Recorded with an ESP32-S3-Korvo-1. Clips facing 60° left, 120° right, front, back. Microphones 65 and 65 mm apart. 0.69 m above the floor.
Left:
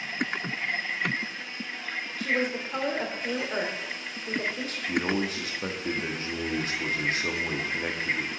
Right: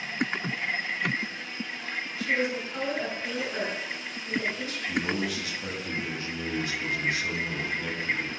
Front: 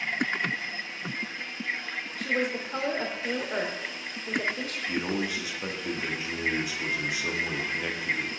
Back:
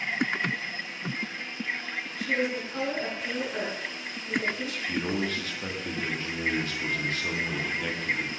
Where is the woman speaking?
25° left, 2.5 m.